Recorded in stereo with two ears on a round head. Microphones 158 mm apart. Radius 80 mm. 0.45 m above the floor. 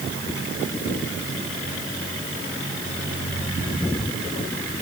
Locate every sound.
Only background noise.